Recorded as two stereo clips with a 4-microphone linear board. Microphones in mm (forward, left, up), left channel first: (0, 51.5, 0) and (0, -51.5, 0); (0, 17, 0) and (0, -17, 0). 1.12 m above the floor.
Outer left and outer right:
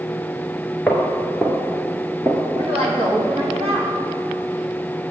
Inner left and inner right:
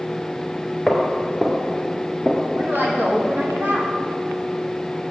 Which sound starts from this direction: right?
A woman speaking, at 2.6 s.